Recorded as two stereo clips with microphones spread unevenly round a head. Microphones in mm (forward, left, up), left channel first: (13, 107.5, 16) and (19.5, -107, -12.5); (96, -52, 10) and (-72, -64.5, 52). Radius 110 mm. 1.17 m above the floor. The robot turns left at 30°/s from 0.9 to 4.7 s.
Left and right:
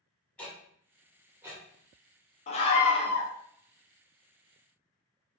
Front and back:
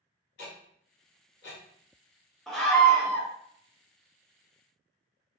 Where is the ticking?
10° left, 1.3 m; by 1.6 s 10° right, 1.3 m.